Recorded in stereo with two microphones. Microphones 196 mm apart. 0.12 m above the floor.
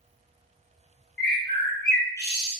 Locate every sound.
1.2 s a bird: 65° left (ahead or behind), 0.9 m